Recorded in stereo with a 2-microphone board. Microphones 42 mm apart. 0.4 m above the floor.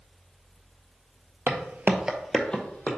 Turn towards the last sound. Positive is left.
turn(degrees=30)  # may be behind; listen again after turning